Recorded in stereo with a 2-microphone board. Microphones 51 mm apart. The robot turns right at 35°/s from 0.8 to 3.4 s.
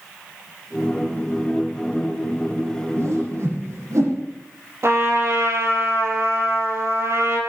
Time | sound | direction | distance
3.0 | a whoosh | 60° right (ahead or behind) | 8 m
4.8 | a trumpet | 60° right (ahead or behind) | 3.5 m